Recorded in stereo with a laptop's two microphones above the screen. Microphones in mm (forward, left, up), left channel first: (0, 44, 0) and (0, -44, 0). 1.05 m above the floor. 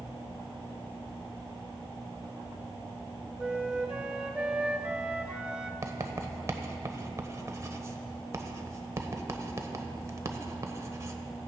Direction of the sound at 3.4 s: 10° right (ahead or behind).